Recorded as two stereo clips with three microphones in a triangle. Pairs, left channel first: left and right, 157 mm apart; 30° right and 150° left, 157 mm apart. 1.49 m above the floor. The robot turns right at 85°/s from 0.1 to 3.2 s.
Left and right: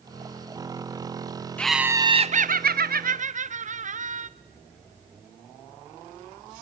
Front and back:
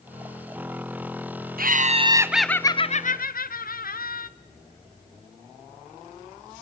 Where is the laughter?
170° left, 0.7 m; by 4.3 s 50° right, 0.7 m.